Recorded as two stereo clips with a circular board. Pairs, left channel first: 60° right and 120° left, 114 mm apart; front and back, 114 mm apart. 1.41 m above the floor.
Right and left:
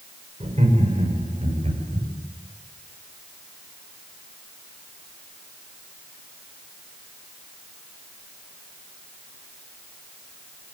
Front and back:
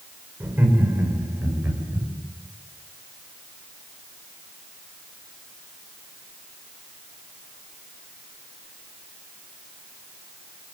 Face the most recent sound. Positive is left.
turn(degrees=110)